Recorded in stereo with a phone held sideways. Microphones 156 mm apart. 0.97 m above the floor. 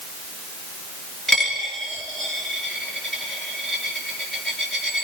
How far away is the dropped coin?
About 4.5 m.